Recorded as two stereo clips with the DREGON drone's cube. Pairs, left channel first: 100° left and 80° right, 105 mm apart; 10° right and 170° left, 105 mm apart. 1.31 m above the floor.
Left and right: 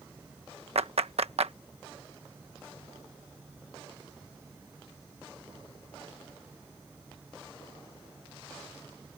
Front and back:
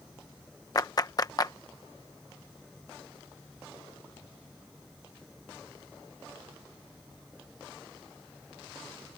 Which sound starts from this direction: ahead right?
A clap, at 0.8 s.